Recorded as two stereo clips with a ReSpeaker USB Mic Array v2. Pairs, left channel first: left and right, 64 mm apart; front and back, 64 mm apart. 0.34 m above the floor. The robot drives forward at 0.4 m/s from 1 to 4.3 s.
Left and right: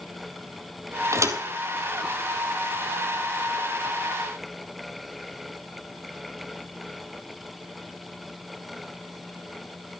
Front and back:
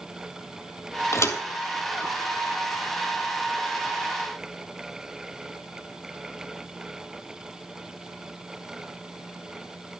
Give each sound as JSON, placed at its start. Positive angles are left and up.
{"t": 1.1, "sound": "a thud", "azimuth_deg": -45, "distance_m": 1.4}